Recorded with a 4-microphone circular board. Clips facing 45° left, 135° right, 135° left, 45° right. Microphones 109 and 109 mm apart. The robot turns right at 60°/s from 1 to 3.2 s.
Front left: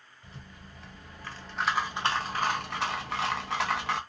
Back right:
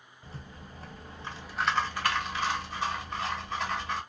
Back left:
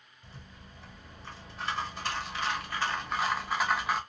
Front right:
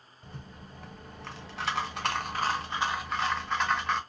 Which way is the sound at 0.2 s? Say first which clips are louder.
Back right 3 dB, front right 5 dB; 80° right.